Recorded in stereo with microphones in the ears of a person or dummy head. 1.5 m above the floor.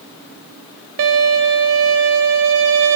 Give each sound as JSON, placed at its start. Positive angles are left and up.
{"t": 1.0, "sound": "a violin", "side_deg": -70, "distance_m": 3.0}